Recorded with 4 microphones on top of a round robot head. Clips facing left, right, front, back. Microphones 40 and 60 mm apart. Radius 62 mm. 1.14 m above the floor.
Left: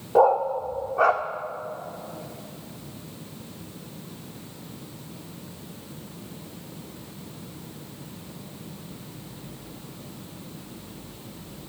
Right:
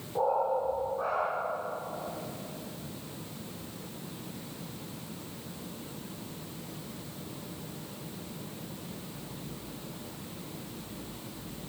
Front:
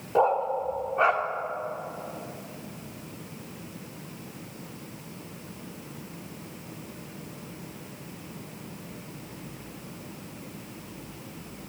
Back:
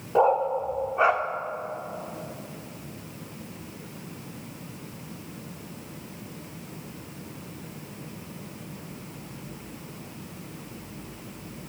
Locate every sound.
0.1 s a dog barking: 95° left, 1.4 m